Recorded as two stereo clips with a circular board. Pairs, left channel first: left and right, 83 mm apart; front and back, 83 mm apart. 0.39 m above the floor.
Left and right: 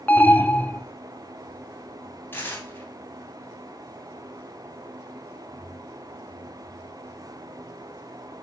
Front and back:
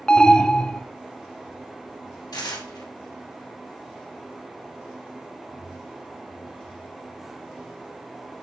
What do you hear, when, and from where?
0.1 s an alarm: 60° left, 0.5 m
2.3 s tearing paper: 30° left, 2 m